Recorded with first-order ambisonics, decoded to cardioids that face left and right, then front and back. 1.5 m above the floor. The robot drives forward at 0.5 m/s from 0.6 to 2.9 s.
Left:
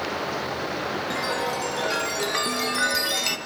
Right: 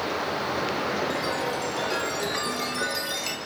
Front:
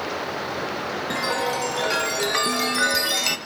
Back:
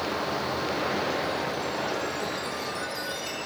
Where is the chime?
10° left, 1.9 m; by 3.4 s 25° left, 1.1 m.